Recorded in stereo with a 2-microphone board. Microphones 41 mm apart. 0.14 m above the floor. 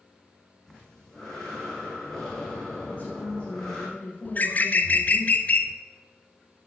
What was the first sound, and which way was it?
Breathing, 10° left (ahead or behind).